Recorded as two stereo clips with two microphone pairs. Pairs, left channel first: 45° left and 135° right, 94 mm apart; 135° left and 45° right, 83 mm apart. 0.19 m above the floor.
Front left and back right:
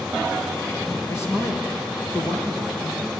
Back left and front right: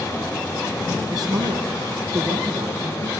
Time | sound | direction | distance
1.1 | a man speaking | 15° right | 3.5 m